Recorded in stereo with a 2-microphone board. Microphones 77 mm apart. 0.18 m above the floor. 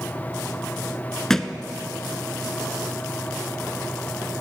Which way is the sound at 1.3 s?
5° left (ahead or behind).